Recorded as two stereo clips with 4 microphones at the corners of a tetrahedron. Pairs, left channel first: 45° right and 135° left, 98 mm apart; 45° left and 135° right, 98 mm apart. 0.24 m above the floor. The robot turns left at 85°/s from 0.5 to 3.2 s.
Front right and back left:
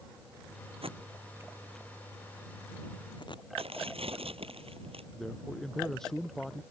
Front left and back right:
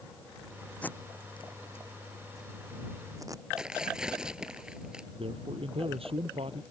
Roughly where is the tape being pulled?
Behind left.